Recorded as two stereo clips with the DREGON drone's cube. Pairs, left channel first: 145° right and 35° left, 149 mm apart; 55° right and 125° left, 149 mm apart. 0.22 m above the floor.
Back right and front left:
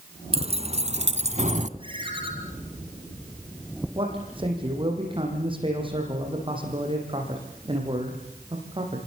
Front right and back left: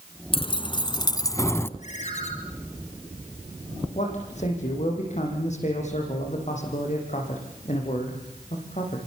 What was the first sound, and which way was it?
Keys jangling, 5° right.